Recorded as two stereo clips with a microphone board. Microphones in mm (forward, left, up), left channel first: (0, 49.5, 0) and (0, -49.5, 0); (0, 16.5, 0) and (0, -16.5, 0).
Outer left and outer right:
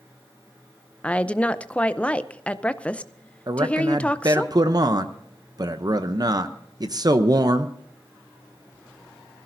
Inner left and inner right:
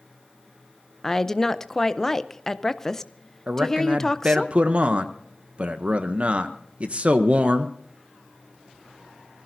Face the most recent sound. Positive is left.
turn(degrees=-40)  # may be behind; listen again after turning